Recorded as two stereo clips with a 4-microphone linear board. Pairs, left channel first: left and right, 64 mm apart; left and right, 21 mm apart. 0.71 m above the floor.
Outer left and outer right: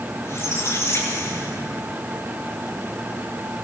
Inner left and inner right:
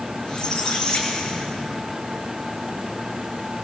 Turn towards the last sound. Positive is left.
turn(degrees=40)  # may be behind; listen again after turning